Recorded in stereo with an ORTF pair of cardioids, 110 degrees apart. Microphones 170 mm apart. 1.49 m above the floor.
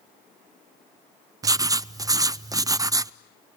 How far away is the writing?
About 0.5 m.